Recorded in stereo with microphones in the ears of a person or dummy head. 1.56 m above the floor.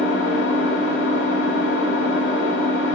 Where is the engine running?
60° left (ahead or behind), 1.3 m.